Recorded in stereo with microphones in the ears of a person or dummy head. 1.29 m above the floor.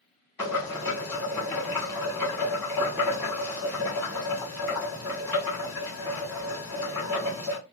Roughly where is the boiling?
Centre.